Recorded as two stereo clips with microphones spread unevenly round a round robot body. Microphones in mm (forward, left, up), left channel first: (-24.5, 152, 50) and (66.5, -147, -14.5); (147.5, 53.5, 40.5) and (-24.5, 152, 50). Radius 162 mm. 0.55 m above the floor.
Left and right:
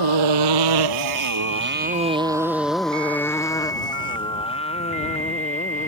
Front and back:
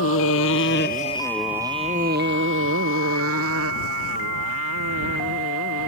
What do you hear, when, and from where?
0.0 s a motorcycle: 60° right; by 5.9 s 175° left